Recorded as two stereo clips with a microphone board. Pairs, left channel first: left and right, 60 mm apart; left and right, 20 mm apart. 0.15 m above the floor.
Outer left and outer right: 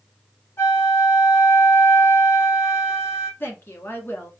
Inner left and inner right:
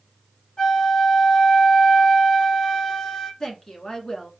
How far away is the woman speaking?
About 1.4 m.